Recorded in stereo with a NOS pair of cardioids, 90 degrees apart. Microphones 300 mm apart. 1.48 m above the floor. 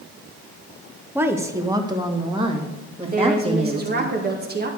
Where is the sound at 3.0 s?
30° right, 2.0 m.